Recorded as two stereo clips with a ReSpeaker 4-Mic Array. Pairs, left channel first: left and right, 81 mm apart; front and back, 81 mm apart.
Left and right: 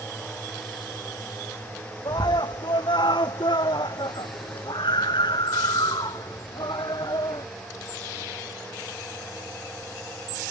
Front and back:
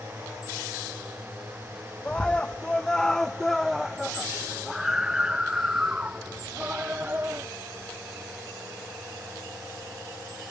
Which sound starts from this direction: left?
A scream, at 2.0 s.